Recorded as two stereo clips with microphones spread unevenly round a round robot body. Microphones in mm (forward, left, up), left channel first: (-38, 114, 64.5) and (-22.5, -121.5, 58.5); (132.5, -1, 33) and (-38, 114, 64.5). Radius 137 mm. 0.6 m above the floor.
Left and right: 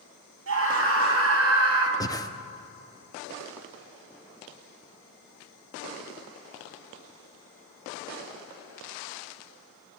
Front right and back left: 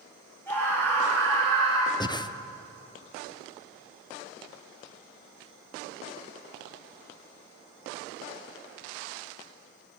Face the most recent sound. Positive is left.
turn(degrees=20)